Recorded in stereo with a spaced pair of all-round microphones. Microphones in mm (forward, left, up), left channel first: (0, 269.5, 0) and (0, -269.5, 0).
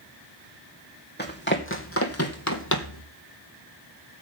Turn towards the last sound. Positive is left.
turn(degrees=35)  # may be behind; listen again after turning